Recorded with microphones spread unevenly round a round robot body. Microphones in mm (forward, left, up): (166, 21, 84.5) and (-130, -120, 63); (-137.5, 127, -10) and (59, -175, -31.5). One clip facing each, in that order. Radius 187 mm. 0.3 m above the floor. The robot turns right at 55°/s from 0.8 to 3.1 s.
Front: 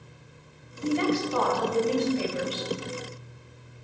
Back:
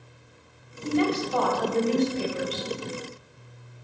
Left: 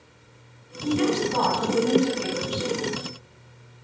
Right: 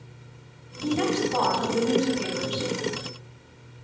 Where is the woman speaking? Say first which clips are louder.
Back 1 dB, left 2 dB; 165° right, 1.9 m; by 2.7 s 60° right, 1.9 m.